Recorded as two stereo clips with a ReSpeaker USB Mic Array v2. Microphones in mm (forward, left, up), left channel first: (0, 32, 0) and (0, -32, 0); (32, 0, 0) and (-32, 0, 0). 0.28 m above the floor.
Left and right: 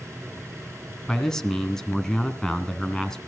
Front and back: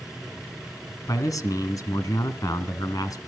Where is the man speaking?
10° left, 2.5 m.